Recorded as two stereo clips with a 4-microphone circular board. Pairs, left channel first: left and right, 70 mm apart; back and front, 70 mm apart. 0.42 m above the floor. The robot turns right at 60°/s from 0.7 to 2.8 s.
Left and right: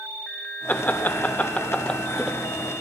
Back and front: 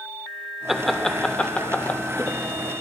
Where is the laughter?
80° left, 0.8 m; by 2.4 s straight behind, 0.8 m.